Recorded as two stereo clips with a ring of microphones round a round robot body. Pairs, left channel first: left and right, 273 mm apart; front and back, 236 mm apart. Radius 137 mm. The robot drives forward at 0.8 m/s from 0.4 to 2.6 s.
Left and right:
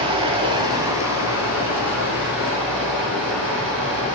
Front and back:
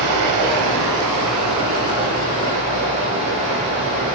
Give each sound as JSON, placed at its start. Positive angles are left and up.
{"t": 0.0, "sound": "running water", "azimuth_deg": -165, "distance_m": 0.8}